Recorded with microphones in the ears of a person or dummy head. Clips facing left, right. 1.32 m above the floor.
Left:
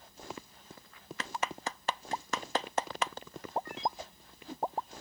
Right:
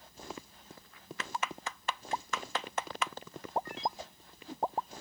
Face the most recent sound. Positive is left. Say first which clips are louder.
# left 2 dB
turn(degrees=30)  # may be behind; listen again after turning